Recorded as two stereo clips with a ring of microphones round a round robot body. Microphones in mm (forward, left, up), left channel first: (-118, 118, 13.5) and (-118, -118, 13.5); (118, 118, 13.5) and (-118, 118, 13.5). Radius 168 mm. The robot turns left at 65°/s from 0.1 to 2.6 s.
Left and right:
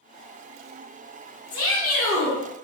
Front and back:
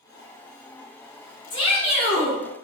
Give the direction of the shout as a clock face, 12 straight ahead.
10 o'clock.